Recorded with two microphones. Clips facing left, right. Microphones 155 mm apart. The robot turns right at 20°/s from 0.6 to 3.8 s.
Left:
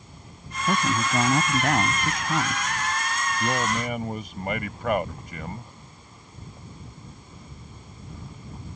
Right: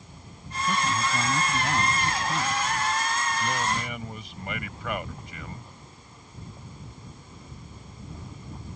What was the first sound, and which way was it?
A man speaking, 95° left.